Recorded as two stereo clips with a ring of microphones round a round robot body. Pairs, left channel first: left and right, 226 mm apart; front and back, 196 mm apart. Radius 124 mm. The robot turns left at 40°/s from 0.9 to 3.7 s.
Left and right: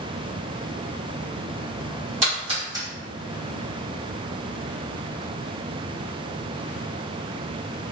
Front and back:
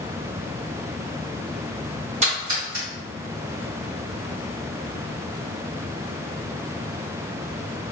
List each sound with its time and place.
2.2 s a splash: 135° right, 1.6 m; by 2.9 s 165° right, 1.6 m